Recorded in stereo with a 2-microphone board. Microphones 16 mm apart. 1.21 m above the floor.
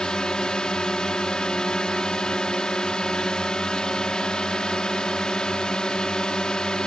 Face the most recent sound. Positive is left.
turn(degrees=55)  # may be behind; listen again after turning